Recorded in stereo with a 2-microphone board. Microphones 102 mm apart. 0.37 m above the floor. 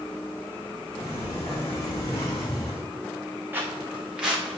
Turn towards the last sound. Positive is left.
turn(degrees=-5)  # may be behind; listen again after turning